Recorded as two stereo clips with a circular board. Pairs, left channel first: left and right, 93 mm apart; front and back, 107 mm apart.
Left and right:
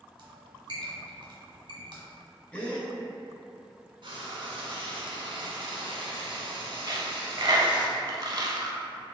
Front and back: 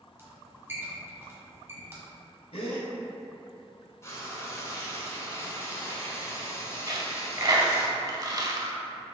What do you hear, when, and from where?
0.2 s a squeak: 115° right, 1.2 m
2.5 s a gasp: 15° left, 1.1 m
4.0 s frying: 65° right, 0.8 m
6.9 s a dropped coin: 130° right, 0.5 m